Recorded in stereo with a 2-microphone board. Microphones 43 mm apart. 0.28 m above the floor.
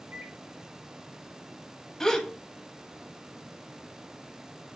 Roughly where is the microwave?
Right.